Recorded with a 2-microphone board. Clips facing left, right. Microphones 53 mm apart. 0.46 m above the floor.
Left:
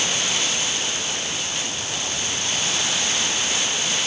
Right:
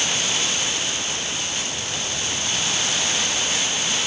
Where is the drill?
No drill in this recording.